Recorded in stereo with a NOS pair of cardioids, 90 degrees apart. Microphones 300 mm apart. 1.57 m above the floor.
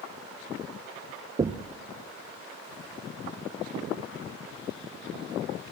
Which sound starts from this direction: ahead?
Knocking, at 1.4 s.